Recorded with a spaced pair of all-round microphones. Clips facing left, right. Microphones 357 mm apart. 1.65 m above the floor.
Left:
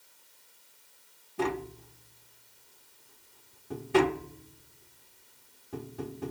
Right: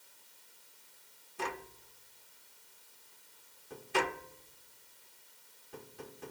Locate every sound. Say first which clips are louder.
1.4 s tapping: left 11 dB; 70° left (ahead or behind)